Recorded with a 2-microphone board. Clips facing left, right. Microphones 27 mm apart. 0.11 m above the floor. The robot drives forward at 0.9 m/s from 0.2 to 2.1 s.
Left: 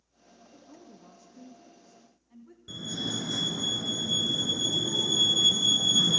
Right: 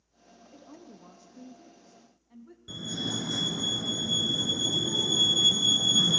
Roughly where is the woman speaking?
Right.